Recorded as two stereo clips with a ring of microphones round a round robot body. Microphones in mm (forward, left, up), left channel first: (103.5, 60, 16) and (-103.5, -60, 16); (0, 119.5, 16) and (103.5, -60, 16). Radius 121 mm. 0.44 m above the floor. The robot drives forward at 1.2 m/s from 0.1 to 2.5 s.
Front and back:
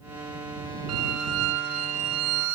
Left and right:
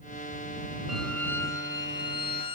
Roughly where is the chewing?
I don't hear chewing.